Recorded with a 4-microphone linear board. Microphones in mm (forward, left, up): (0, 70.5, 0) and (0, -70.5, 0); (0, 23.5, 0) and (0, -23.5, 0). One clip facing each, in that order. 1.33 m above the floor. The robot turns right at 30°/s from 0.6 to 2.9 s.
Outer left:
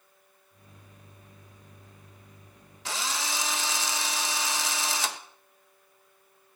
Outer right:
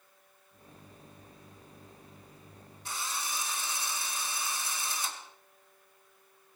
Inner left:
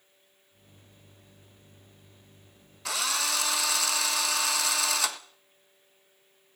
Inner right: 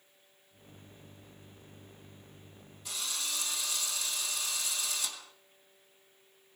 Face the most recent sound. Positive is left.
turn(degrees=75)  # may be behind; listen again after turning